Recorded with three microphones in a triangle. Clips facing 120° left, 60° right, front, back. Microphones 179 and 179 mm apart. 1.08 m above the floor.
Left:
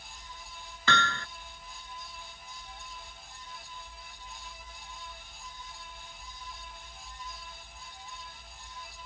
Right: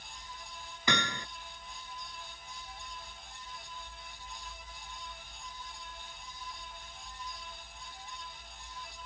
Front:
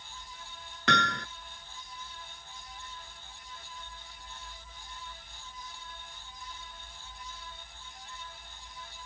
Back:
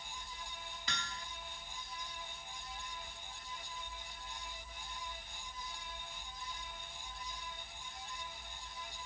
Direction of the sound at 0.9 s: 15° left.